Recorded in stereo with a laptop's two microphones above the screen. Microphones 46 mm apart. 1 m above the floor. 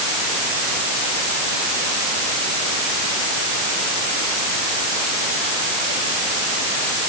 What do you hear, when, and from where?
Only background noise.